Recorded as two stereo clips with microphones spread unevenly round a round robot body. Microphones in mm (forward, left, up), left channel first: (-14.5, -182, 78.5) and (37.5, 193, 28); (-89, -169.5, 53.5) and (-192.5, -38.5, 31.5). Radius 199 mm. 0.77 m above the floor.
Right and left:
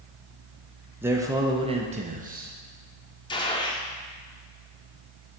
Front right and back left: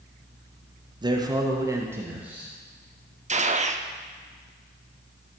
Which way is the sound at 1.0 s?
150° left.